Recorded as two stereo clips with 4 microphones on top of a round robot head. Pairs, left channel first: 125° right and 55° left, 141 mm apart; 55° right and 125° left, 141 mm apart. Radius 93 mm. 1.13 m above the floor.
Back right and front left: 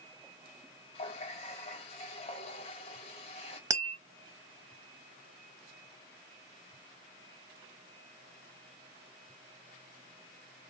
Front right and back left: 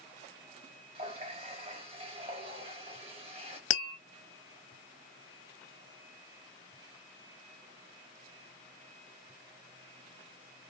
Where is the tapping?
15° right, 0.9 m.